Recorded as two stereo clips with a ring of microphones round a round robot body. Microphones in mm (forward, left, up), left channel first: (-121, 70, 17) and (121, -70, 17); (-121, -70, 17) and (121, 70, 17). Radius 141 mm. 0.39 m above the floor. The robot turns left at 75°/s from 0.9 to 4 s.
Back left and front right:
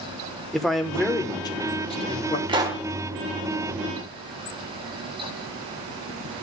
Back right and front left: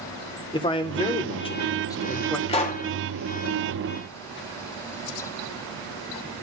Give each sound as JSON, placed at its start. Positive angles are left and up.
{"t": 0.5, "sound": "a man speaking", "azimuth_deg": -125, "distance_m": 0.9}
{"t": 2.5, "sound": "a pop", "azimuth_deg": -90, "distance_m": 1.0}